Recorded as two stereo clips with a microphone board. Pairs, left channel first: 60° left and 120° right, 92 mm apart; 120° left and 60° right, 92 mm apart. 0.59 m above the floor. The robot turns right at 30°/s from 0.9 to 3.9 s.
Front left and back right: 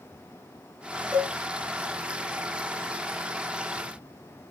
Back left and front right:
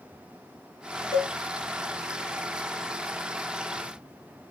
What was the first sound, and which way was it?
A cowbell, 160° left.